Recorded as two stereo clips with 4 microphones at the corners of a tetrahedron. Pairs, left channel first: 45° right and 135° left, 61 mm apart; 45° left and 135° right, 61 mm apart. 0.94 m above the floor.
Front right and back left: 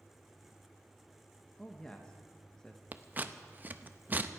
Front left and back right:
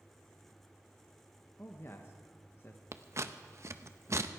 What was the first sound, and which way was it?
A man speaking, 30° left.